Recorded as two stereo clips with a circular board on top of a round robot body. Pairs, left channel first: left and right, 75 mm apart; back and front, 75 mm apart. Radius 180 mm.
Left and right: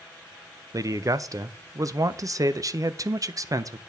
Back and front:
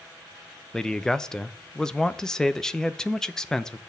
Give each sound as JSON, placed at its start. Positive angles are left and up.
{"t": 0.7, "sound": "a man speaking", "azimuth_deg": -100, "distance_m": 0.8}